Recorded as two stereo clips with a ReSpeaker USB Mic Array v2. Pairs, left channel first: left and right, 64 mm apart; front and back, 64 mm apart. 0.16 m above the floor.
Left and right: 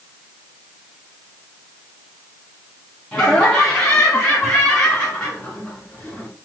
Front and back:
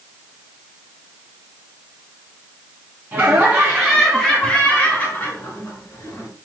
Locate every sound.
3.1 s laughter: 160° left, 1.2 m; by 6.3 s 10° left, 1.6 m